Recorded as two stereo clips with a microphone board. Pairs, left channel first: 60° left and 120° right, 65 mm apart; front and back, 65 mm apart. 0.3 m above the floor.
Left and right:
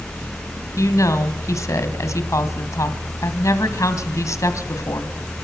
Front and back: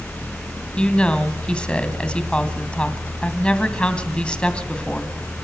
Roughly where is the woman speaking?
Left.